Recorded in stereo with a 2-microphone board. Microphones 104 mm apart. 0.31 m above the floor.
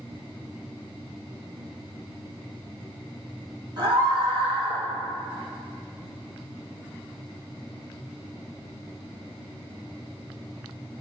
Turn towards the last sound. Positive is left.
turn(degrees=-65)  # may be behind; listen again after turning